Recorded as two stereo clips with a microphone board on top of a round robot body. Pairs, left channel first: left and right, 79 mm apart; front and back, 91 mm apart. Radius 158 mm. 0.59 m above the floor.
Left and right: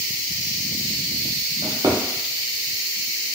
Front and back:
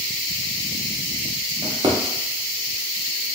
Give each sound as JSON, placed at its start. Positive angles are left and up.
{"t": 1.6, "sound": "a drawer", "azimuth_deg": -135, "distance_m": 0.6}